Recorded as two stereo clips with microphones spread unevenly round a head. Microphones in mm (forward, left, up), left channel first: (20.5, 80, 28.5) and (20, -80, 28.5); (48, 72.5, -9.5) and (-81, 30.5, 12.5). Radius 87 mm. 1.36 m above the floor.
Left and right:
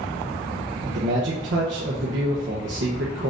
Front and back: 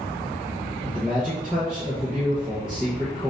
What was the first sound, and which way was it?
A man speaking, 80° right.